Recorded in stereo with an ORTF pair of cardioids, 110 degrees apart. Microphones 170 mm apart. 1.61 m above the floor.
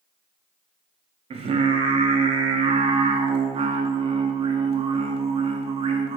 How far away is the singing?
About 0.6 m.